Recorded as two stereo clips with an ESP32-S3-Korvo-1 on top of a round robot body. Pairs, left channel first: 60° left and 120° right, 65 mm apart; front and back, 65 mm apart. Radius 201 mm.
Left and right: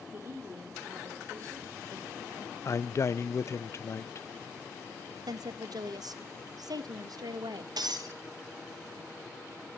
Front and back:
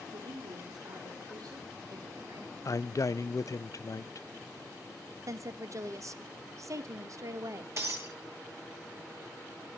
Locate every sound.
0.1 s a woman speaking: straight behind, 4 m; by 2.5 s 155° right, 5.5 m
2.6 s a man speaking: 25° left, 0.8 m
5.3 s a woman speaking: 140° right, 1.4 m
7.8 s breaking glass: 135° right, 2 m